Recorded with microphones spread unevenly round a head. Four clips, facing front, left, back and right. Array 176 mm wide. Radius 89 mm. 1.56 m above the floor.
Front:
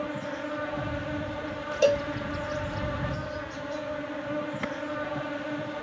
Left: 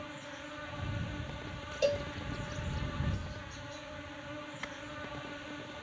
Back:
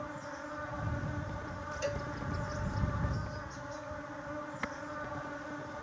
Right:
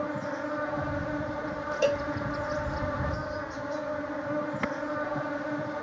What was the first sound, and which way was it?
An insect, 50° right.